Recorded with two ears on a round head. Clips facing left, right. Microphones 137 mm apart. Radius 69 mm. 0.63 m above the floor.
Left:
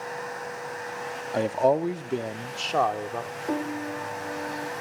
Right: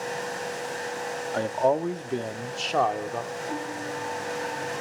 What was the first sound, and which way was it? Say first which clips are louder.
A man speaking: left 2 dB; 15° left (ahead or behind).